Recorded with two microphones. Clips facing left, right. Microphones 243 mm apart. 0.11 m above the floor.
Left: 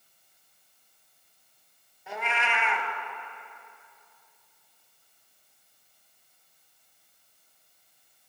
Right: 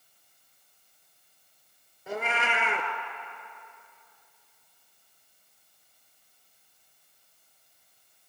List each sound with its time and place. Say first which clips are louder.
2.1 s a cat meowing: right 3 dB; 40° right (ahead or behind), 1.1 m